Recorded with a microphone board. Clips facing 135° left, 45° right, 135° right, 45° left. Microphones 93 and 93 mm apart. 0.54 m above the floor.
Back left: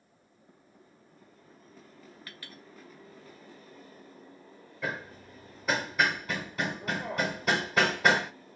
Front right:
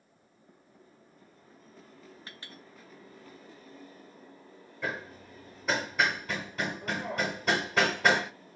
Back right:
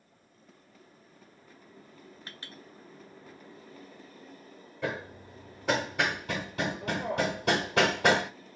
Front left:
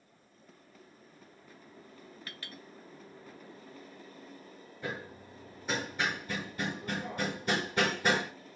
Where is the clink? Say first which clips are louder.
Even, even; 90° right, 0.7 m.